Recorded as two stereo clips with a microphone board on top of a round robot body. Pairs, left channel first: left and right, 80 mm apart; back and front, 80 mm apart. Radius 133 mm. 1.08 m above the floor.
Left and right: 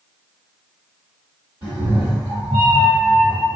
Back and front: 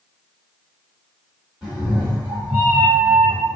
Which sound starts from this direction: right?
A cat meowing, at 1.6 s.